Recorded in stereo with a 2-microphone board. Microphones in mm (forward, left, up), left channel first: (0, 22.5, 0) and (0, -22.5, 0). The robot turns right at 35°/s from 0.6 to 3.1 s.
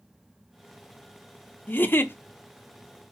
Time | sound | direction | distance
1.7 | a giggle | 45° left (ahead or behind) | 0.7 m